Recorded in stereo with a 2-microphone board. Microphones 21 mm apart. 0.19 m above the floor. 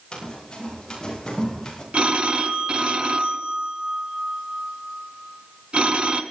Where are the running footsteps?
35° left (ahead or behind), 8.5 m; by 1.8 s 25° left (ahead or behind), 7 m.